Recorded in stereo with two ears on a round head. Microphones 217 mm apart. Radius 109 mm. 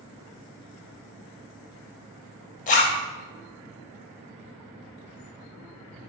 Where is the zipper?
30° left (ahead or behind), 0.7 m.